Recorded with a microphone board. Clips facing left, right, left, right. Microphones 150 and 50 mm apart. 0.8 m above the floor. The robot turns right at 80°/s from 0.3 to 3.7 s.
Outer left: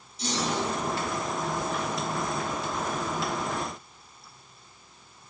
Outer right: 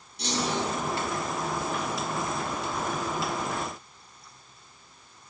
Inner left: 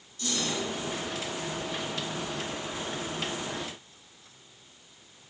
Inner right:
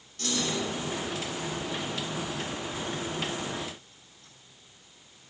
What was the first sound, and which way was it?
A clunk, 70° right.